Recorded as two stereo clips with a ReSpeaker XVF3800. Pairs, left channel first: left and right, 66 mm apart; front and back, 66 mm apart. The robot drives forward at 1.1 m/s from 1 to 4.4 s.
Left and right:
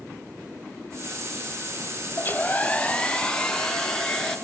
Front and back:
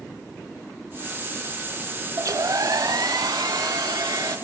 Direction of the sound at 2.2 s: 145° left.